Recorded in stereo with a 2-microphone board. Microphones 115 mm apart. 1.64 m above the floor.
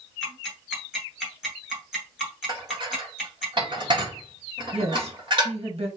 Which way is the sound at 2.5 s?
45° right (ahead or behind).